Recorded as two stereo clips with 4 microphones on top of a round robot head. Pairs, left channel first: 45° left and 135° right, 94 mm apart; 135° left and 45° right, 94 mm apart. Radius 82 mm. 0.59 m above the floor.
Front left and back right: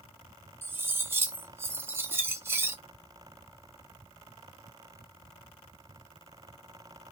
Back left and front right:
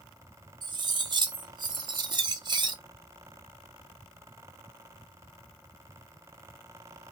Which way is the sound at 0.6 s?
70° right.